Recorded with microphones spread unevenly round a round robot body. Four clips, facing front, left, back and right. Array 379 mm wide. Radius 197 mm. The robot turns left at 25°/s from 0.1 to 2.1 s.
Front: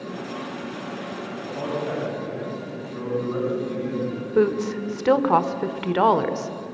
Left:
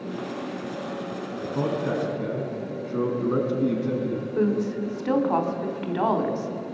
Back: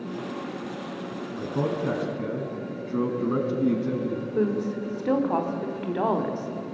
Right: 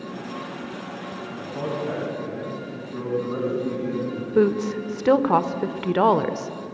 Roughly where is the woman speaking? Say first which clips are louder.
Right 5 dB, front 6 dB; ahead right.